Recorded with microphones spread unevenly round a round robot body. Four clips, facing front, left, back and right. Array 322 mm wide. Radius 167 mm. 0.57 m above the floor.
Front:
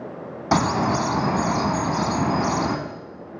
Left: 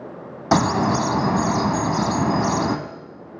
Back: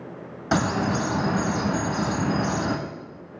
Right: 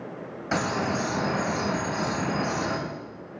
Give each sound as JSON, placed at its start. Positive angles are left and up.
{"t": 0.5, "sound": "a bird", "azimuth_deg": 105, "distance_m": 0.7}